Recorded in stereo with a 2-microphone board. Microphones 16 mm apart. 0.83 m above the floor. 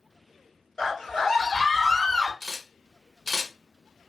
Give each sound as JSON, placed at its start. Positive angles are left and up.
{"t": 0.8, "sound": "a scream", "side_deg": 40, "distance_m": 1.6}
{"t": 2.4, "sound": "a camera shutter", "side_deg": 15, "distance_m": 0.9}